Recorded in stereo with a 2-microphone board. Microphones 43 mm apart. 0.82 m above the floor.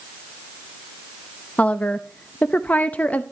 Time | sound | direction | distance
1.6 | a woman speaking | 35° left (ahead or behind) | 0.7 m